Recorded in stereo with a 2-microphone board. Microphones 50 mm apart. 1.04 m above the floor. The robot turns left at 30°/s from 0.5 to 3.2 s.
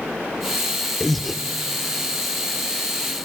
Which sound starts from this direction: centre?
Breathing, at 1.0 s.